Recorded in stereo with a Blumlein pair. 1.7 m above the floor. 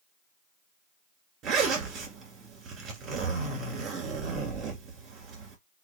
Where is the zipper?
30° right, 2.0 m.